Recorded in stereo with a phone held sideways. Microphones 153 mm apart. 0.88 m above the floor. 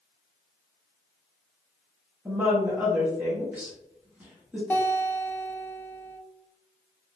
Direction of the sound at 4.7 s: 15° left (ahead or behind).